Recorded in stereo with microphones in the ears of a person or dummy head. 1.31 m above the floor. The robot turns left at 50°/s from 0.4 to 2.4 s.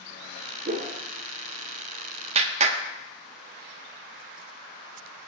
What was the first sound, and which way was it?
A whoosh, 45° right (ahead or behind).